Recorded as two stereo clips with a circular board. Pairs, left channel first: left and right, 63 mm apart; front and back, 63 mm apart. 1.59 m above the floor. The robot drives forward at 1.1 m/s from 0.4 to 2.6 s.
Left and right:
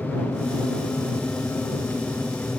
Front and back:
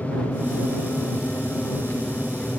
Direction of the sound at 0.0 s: 35° left.